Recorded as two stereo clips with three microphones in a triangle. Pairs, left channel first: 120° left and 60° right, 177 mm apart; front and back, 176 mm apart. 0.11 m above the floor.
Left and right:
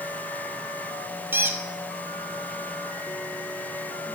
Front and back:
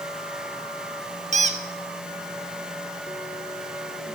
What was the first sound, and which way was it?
A squeak, 135° right.